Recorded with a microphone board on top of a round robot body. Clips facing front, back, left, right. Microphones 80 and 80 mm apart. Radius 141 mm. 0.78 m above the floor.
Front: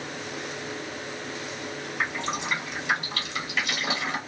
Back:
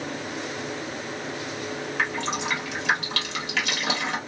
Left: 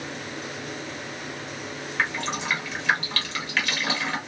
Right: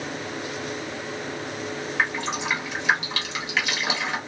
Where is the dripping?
165° right, 1.2 m.